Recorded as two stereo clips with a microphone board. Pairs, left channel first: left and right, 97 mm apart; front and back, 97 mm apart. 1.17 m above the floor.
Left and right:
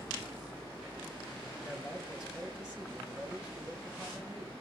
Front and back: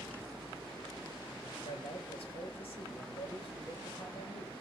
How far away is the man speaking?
About 4.5 m.